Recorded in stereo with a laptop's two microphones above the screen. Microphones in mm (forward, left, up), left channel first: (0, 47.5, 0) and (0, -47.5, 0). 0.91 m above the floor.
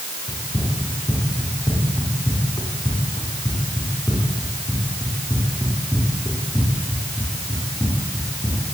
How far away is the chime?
No chime in this recording.